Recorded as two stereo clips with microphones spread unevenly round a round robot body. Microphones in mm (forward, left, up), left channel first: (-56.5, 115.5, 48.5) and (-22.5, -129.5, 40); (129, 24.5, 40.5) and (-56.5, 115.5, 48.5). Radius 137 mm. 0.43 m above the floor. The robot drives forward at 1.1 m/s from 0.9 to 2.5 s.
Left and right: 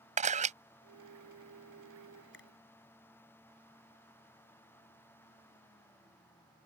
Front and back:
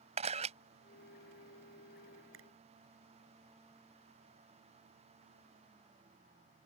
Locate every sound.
0.2 s a camera shutter: 140° right
2.3 s a finger snap: 140° left